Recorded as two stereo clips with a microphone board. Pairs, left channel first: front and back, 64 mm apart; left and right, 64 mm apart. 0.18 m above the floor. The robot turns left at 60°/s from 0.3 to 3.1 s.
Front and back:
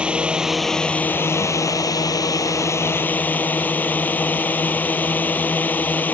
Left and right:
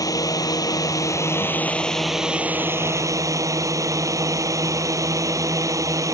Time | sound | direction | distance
0.0 | a drone | 105° left | ?